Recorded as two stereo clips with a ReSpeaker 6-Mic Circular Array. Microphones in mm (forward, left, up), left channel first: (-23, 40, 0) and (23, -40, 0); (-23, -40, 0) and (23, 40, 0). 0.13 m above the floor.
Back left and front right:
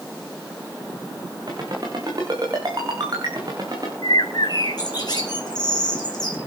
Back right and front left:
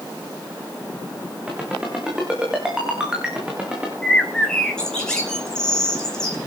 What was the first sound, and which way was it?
A ringtone, 20° right.